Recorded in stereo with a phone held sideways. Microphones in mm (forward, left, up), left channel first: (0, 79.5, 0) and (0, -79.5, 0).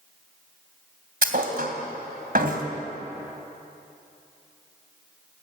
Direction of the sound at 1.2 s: 70° right (ahead or behind).